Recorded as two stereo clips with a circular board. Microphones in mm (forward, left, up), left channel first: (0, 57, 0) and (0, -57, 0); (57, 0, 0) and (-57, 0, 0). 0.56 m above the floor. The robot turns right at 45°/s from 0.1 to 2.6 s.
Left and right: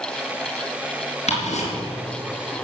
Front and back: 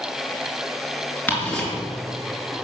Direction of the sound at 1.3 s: 75° left.